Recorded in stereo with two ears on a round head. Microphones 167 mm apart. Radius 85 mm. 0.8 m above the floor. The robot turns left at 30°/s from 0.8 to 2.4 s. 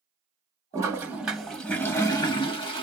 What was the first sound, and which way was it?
A toilet flushing, 160° right.